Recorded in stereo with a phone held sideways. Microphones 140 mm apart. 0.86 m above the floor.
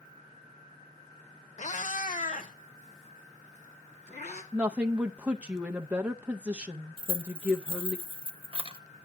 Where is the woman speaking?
10° right (ahead or behind), 0.5 m.